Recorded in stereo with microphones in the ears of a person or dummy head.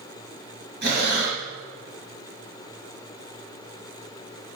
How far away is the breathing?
About 4.5 m.